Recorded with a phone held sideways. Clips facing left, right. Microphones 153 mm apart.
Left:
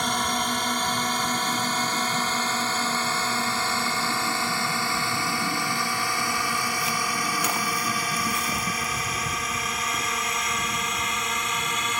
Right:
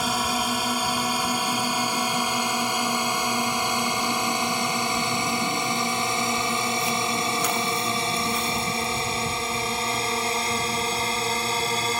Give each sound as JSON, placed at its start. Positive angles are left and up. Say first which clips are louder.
{"t": 0.0, "sound": "a drone", "louder": "right 1 dB", "side_deg": -5}